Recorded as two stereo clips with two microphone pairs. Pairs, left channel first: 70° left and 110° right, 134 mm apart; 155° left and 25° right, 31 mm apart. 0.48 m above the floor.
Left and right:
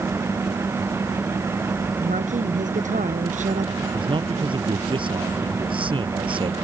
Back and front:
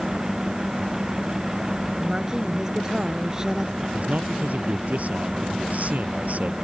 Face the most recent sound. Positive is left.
turn(degrees=-60)